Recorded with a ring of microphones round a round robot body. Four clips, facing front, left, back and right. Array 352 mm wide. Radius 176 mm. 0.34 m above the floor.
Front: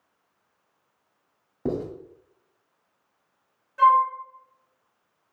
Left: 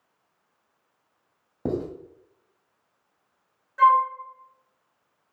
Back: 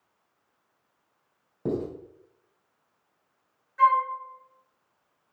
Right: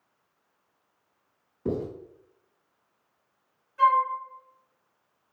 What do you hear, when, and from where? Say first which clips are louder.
1.6 s writing: left 2 dB, front 1 dB; 85° left, 2.5 m
3.8 s a flute: left 3 dB, front 3 dB; 45° left, 3 m